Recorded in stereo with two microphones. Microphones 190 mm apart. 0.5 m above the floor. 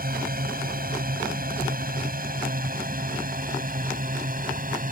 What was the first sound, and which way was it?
A drone, 50° right (ahead or behind).